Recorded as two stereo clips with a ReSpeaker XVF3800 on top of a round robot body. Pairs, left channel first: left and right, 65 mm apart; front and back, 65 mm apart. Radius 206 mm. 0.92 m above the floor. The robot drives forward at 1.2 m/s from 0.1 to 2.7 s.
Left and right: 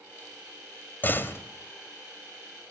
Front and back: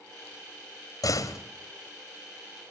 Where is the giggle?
No giggle in this recording.